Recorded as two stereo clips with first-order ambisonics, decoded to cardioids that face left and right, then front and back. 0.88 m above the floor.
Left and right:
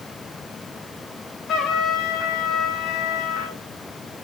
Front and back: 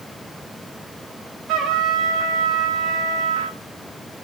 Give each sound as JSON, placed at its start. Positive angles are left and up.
{"t": 1.5, "sound": "a trumpet", "azimuth_deg": 145, "distance_m": 3.5}